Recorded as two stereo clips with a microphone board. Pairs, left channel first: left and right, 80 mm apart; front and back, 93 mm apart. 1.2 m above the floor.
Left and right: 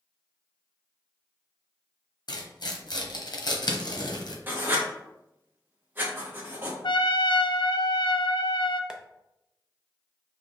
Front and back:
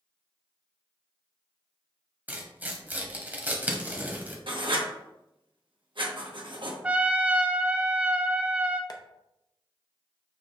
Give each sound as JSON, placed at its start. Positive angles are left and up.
{"t": 2.3, "sound": "tearing paper", "azimuth_deg": 110, "distance_m": 0.9}
{"t": 4.5, "sound": "writing", "azimuth_deg": -155, "distance_m": 1.0}
{"t": 6.8, "sound": "a trumpet", "azimuth_deg": 105, "distance_m": 0.6}
{"t": 8.9, "sound": "tapping", "azimuth_deg": -15, "distance_m": 0.5}